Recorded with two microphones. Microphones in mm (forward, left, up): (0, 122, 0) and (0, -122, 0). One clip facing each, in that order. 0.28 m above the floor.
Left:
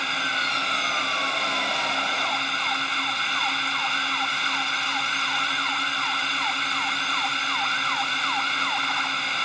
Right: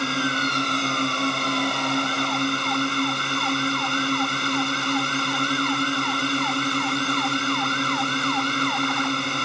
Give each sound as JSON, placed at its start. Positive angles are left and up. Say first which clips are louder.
{"t": 0.0, "sound": "a drone", "louder": "right 11 dB", "side_deg": -50}